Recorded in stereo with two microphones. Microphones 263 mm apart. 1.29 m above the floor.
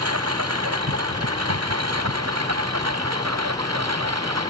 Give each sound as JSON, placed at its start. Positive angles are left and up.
{"t": 0.0, "sound": "a lawn mower", "side_deg": -70}